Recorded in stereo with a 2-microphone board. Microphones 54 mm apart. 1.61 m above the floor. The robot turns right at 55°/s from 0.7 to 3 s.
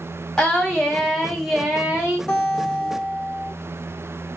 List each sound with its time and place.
0.4 s singing: 10° left (ahead or behind), 0.9 m; by 2.2 s 20° right (ahead or behind), 0.9 m
2.3 s a guitar: 150° left, 1.4 m; by 3.5 s 170° right, 1.4 m